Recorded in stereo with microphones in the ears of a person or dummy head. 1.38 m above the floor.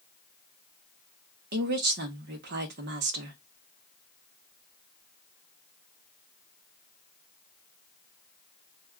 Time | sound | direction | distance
1.5 | a woman speaking | 55° right (ahead or behind) | 0.8 m